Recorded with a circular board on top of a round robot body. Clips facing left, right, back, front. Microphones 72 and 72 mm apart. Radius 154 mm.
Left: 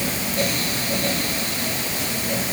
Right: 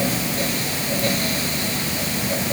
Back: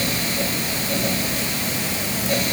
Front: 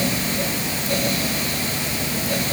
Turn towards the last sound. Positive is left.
No sound to turn to.